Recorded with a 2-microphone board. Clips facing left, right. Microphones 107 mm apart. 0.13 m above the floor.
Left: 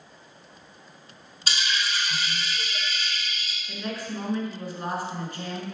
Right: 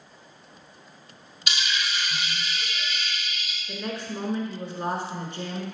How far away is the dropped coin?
About 1.1 m.